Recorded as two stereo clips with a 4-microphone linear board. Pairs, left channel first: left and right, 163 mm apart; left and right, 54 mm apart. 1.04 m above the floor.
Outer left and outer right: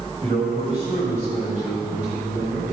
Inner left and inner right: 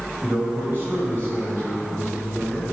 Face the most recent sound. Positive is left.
turn(degrees=-45)  # may be behind; listen again after turning